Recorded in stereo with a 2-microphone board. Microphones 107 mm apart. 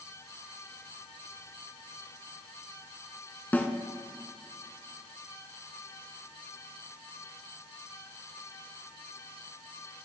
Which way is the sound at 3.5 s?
15° left (ahead or behind).